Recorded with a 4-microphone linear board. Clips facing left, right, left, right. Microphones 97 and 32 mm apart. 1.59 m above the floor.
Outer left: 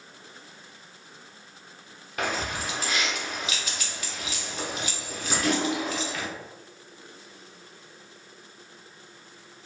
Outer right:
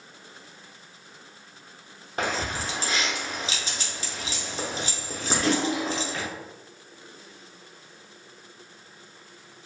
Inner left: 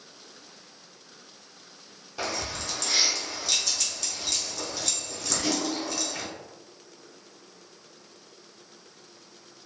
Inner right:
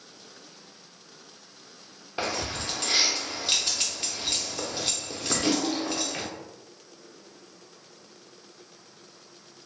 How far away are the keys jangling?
About 0.6 m.